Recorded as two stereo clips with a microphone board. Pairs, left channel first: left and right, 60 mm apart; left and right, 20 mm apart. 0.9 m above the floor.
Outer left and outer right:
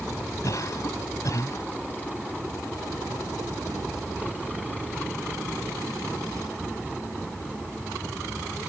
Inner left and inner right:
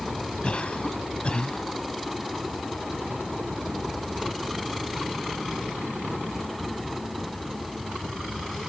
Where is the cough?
60° left (ahead or behind).